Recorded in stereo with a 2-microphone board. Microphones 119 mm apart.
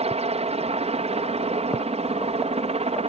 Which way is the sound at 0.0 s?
60° right (ahead or behind).